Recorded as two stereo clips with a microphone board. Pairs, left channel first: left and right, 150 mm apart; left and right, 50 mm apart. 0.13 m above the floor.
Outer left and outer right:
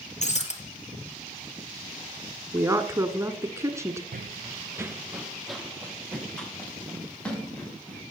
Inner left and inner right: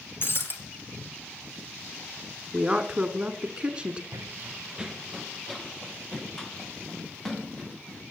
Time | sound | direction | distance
0.2 | breaking glass | 50° left (ahead or behind) | 1.9 m
2.5 | a woman speaking | 20° right (ahead or behind) | 1.2 m
4.1 | running footsteps | 80° right | 0.5 m